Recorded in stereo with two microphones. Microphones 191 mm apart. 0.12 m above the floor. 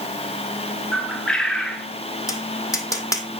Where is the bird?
5° left (ahead or behind), 1.6 m.